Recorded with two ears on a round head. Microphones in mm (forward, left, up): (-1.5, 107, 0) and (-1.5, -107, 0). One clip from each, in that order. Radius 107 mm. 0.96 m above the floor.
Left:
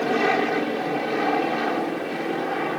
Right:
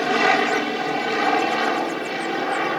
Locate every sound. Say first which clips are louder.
0.0 s an aircraft: right 3 dB; 40° right (ahead or behind)